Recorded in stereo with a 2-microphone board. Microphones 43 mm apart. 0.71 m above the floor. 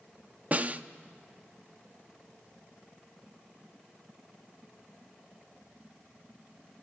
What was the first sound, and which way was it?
A snare drum, 35° right (ahead or behind).